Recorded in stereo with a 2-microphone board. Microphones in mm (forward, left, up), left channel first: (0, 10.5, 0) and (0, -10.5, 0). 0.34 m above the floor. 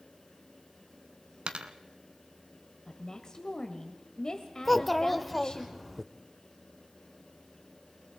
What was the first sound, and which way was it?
A dropped coin, 55° right (ahead or behind).